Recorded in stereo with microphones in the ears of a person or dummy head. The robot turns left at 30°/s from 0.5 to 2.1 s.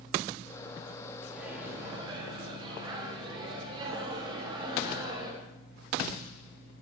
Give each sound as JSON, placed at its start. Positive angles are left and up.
{"t": 1.3, "sound": "a microwave", "side_deg": -5, "distance_m": 2.0}